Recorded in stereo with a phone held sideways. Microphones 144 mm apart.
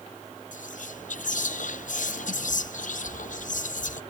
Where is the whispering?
65° left (ahead or behind), 0.5 m.